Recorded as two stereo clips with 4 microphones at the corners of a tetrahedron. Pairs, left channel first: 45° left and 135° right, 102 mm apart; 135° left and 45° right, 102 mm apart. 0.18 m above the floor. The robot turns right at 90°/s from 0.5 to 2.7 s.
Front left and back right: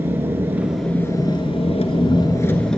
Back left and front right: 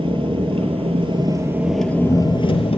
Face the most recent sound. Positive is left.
turn(degrees=130)